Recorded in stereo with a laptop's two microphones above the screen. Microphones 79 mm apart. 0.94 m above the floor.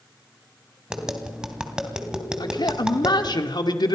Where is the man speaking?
65° left (ahead or behind), 2.0 m.